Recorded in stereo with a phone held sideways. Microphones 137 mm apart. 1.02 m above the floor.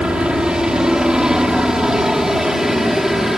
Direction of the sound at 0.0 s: 5° right (ahead or behind).